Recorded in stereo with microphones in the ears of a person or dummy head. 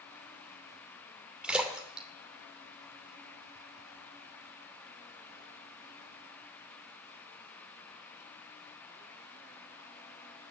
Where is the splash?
5° right (ahead or behind), 2.5 m.